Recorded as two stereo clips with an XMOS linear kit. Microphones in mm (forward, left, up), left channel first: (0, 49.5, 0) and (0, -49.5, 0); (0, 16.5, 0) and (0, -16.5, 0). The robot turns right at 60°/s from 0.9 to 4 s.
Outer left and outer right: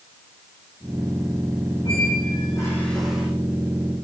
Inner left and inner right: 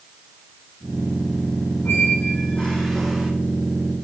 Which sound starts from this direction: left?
A squeak, at 1.9 s.